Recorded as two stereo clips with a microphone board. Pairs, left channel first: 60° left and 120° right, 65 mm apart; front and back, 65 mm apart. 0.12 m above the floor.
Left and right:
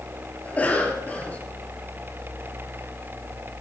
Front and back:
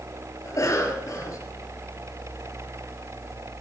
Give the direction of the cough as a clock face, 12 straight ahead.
12 o'clock.